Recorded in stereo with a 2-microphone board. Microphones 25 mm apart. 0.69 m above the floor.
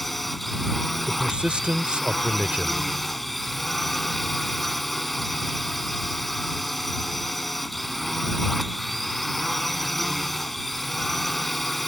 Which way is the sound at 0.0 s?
5° left (ahead or behind).